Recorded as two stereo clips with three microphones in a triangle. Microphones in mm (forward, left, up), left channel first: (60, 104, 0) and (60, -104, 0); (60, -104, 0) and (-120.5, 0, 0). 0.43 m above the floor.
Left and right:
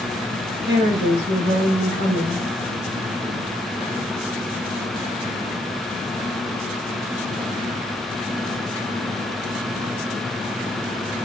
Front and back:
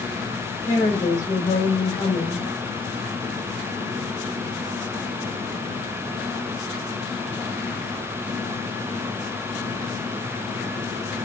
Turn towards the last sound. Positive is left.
turn(degrees=-85)